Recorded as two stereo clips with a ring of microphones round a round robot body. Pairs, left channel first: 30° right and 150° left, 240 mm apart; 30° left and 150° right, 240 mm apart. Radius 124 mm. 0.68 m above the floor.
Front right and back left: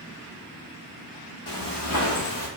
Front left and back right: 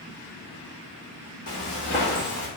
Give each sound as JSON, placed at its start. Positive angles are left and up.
{"t": 1.5, "sound": "footsteps", "azimuth_deg": -25, "distance_m": 1.4}